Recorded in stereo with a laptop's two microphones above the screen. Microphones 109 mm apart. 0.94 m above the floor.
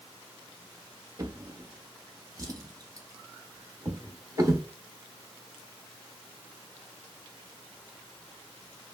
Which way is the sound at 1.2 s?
30° right (ahead or behind).